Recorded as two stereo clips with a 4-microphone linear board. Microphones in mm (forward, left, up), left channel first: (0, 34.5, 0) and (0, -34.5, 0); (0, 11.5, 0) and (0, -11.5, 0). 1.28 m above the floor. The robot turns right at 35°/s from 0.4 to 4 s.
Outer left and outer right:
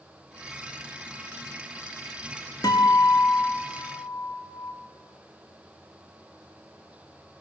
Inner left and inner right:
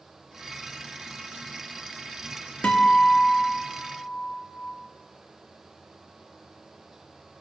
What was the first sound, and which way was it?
A guitar, 70° left.